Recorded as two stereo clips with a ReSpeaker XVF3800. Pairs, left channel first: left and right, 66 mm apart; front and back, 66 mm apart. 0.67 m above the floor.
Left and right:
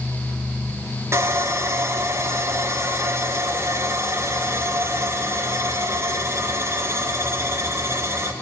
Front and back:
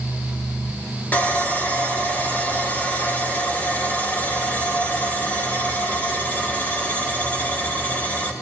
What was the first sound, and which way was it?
Sawing, 60° right.